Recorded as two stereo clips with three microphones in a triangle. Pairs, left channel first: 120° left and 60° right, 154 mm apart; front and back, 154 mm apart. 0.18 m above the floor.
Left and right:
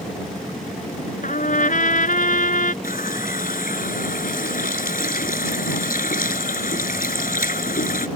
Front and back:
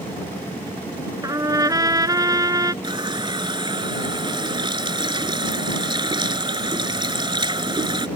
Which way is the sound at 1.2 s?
115° left.